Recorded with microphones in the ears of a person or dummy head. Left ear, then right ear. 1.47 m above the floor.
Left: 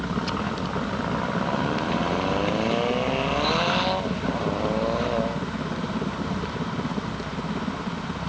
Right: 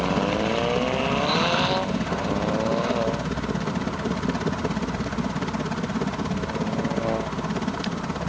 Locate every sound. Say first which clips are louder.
0.0 s a helicopter: right 5 dB; 60° right (ahead or behind)